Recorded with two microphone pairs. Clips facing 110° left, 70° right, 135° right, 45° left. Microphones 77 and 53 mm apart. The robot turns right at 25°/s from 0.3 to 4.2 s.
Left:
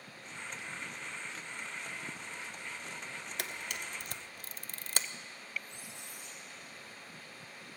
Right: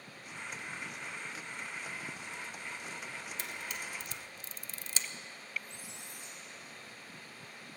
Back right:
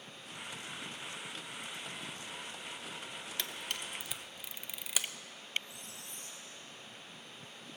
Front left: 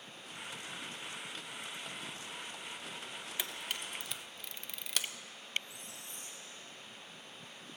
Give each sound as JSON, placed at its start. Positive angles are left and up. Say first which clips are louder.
{"t": 3.4, "sound": "a camera shutter", "louder": "left 2 dB, even", "azimuth_deg": 125, "distance_m": 0.5}
{"t": 5.6, "sound": "a squeak", "louder": "even, even", "azimuth_deg": -15, "distance_m": 2.5}